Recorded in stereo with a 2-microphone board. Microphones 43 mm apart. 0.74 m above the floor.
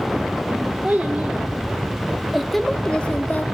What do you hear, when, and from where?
0.8 s a child speaking: 40° right (ahead or behind), 1.7 m; by 3.4 s 40° left (ahead or behind), 1.0 m